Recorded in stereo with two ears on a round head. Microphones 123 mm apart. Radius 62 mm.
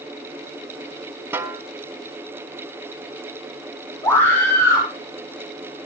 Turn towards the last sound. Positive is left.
turn(degrees=15)  # may be behind; listen again after turning